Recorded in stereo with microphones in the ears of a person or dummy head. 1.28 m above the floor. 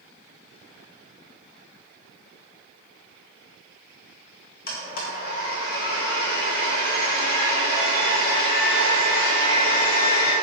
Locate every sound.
4.7 s a blender: 50° left (ahead or behind), 1.8 m